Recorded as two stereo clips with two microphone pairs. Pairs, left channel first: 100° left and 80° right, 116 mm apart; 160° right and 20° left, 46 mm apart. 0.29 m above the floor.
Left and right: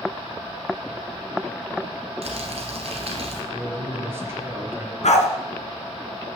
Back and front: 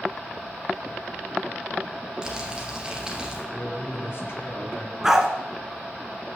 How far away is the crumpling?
About 2 m.